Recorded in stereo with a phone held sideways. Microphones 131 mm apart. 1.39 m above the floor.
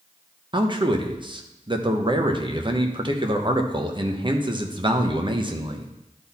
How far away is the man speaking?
About 1.0 m.